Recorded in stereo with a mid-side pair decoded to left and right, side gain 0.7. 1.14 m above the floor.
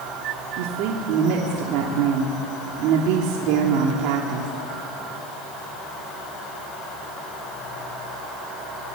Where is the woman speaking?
65° right, 3 m.